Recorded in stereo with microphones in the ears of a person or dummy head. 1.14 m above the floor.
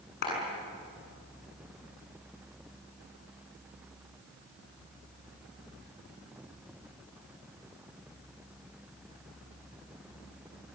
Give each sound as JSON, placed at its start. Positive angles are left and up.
{"t": 0.2, "sound": "a clap", "side_deg": 50, "distance_m": 8.0}